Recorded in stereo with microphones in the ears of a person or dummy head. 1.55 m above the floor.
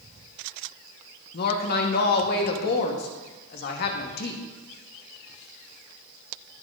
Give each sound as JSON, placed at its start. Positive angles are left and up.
{"t": 1.3, "sound": "a woman speaking", "side_deg": 50, "distance_m": 1.2}